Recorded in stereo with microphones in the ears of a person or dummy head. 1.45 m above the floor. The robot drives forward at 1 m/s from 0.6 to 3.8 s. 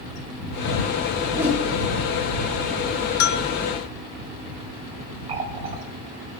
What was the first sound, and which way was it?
A whoosh, 10° right (ahead or behind).